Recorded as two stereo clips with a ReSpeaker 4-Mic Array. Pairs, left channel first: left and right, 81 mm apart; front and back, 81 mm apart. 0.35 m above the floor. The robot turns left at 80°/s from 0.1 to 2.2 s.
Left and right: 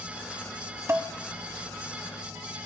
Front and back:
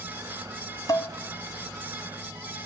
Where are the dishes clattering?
35° right, 1.5 m; by 1.1 s 50° right, 1.5 m.